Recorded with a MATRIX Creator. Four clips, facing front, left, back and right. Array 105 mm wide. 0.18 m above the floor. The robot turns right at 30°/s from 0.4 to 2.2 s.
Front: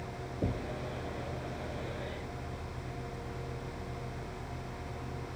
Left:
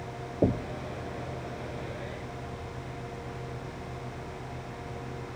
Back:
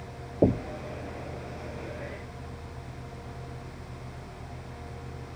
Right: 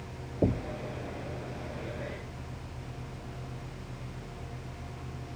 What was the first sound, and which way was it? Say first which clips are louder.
Knocking: left 2 dB, back 12 dB; 165° left.